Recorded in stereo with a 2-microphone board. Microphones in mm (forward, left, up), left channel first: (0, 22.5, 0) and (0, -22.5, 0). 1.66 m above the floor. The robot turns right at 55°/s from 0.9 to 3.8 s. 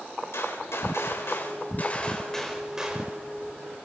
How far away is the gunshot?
About 4.5 m.